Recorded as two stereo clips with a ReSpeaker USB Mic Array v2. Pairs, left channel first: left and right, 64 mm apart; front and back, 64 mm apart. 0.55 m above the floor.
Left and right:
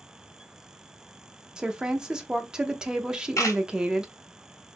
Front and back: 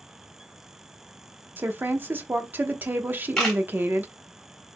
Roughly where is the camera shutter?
Left.